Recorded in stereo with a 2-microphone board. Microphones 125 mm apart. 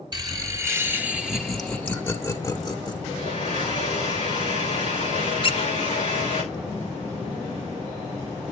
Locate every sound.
0.1 s laughter: 35° right (ahead or behind), 1.4 m; by 3.0 s 35° left (ahead or behind), 1.6 m
3.1 s a blender: 45° left (ahead or behind), 10 m
5.4 s a squeak: 45° left (ahead or behind), 1.4 m